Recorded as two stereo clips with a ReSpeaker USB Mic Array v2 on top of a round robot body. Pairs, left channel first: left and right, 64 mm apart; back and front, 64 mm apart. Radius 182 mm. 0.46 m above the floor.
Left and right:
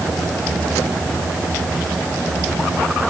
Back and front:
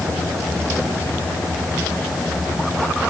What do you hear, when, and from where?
Only background noise.